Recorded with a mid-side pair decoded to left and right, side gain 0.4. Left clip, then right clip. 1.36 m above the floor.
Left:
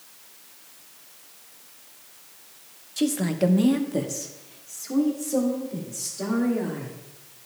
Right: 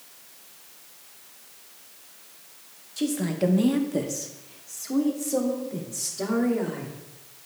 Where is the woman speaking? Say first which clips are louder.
Left 2 dB; 35° left, 0.8 m; by 7.0 s 25° right, 2.5 m.